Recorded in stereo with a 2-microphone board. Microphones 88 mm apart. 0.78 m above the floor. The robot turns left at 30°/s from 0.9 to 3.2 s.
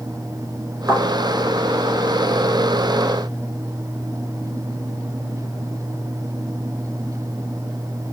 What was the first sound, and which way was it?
A thud, 30° right (ahead or behind).